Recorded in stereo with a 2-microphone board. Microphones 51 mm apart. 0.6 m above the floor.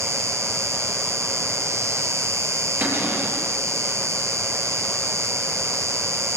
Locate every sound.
0.0 s an insect: 65° right (ahead or behind), 1.5 m
2.8 s a cupboard door: 45° right (ahead or behind), 6 m